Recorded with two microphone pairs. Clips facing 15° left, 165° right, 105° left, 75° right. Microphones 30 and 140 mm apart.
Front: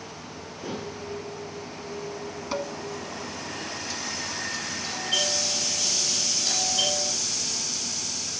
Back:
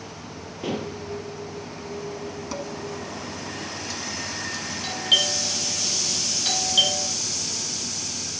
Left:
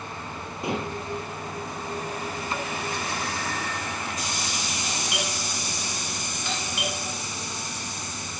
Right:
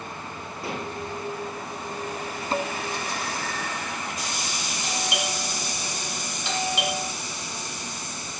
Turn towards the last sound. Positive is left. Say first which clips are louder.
# back 7 dB, right 4 dB
turn(degrees=-145)